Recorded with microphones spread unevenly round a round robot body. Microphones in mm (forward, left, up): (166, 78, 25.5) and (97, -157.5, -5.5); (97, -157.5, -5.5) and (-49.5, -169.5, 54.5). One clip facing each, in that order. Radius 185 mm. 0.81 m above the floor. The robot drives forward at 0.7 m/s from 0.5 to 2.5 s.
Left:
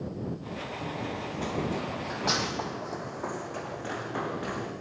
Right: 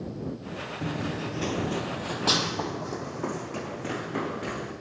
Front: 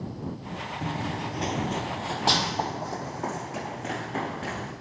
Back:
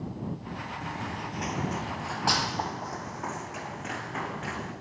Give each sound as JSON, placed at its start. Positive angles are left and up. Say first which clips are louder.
{"t": 0.8, "sound": "running footsteps", "louder": "right 6 dB, front 7 dB", "azimuth_deg": -60, "distance_m": 0.8}